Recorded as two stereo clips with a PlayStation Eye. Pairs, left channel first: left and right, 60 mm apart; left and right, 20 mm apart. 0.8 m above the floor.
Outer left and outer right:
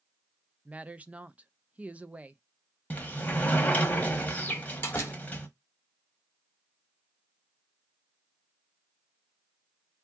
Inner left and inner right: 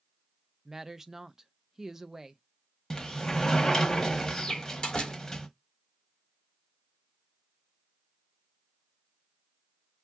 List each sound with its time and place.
0.7 s a woman speaking: 20° right (ahead or behind), 0.5 m
2.9 s a sliding door: 25° left (ahead or behind), 1.0 m
4.5 s a door slam: 40° left (ahead or behind), 1.6 m